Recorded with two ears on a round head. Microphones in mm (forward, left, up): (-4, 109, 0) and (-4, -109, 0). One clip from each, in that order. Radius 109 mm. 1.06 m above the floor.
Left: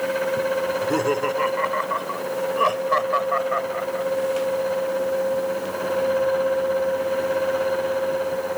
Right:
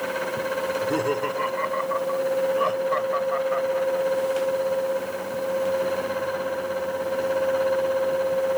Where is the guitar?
I don't hear a guitar.